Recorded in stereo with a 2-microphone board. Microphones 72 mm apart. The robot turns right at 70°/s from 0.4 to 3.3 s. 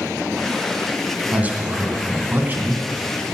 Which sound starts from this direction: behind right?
A man speaking, at 1.3 s.